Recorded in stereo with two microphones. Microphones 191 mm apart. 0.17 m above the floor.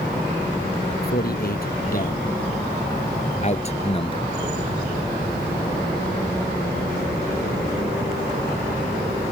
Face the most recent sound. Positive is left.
turn(degrees=25)  # may be behind; listen again after turning